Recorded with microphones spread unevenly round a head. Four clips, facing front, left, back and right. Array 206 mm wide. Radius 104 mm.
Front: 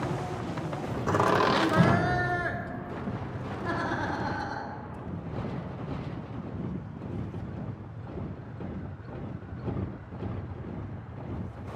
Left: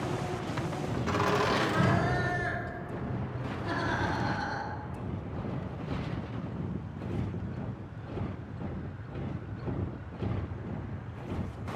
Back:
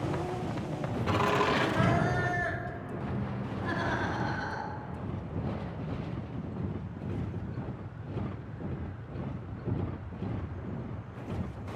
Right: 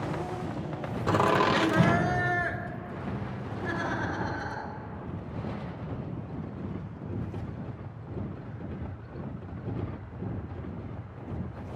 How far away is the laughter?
About 0.6 m.